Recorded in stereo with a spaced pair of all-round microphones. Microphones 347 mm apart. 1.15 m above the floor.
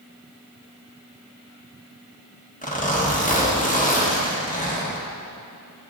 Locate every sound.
2.6 s a zipper: 20° left (ahead or behind), 1.3 m